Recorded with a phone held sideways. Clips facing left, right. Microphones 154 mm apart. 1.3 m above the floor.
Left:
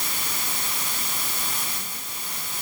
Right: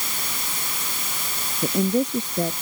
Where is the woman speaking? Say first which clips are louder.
Right 19 dB; 70° right (ahead or behind).